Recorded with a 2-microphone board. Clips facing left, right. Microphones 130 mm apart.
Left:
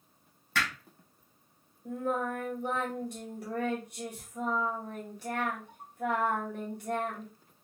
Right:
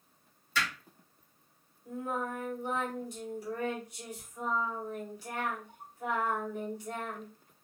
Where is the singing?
65° left (ahead or behind), 2.5 m.